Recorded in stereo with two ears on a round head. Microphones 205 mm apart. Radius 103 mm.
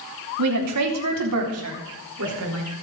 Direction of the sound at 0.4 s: 75° right (ahead or behind).